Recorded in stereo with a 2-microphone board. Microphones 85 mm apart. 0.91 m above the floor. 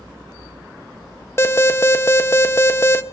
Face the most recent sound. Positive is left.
turn(degrees=30)  # may be behind; listen again after turning